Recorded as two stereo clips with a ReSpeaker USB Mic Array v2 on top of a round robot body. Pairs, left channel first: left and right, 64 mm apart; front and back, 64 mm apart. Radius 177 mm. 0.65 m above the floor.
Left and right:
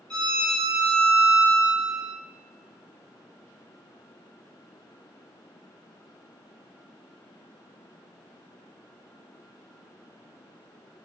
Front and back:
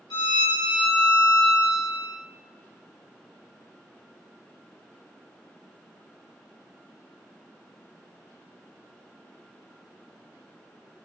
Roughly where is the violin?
Ahead.